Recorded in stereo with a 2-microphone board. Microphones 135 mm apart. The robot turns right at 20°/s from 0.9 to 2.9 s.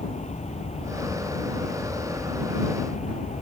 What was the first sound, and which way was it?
An aircraft, 60° left (ahead or behind).